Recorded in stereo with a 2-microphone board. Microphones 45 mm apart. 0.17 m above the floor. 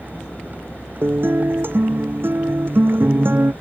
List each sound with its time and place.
0.0 s a vehicle: 40° right (ahead or behind)
1.0 s a guitar: 50° right (ahead or behind)